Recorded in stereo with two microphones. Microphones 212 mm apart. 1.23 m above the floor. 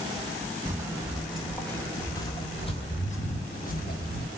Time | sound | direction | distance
0.7 | footsteps | 15° right (ahead or behind) | 1.5 m